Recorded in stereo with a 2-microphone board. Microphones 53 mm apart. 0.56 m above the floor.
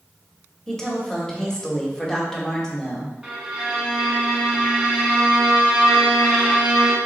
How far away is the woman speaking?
About 1.0 m.